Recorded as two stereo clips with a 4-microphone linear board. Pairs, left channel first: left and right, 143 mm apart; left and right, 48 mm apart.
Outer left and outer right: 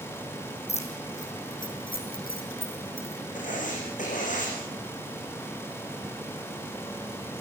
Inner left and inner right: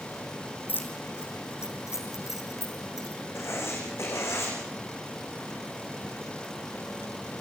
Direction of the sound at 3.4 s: 60° left (ahead or behind).